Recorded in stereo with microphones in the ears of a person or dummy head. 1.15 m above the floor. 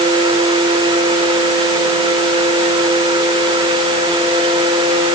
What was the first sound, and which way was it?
Only background noise.